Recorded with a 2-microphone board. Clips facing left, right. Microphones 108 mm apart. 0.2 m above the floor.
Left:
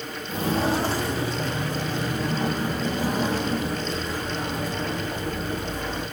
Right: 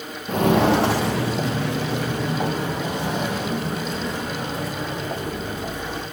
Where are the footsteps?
65° right (ahead or behind), 1.0 m; by 6.0 s 70° right (ahead or behind), 6.5 m.